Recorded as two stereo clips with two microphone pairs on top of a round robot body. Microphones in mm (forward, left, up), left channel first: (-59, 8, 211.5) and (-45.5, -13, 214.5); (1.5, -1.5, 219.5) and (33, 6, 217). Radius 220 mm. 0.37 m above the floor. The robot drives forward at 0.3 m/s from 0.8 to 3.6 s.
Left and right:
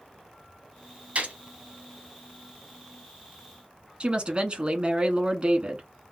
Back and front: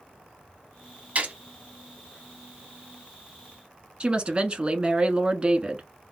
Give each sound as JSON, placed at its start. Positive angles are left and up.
{"t": 1.1, "sound": "a gunshot", "azimuth_deg": -30, "distance_m": 2.0}
{"t": 4.0, "sound": "a woman speaking", "azimuth_deg": -35, "distance_m": 1.2}